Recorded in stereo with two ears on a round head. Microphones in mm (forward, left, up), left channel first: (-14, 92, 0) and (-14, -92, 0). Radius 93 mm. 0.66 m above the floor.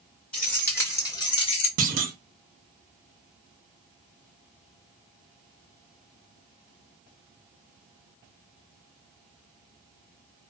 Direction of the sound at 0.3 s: 5° left (ahead or behind).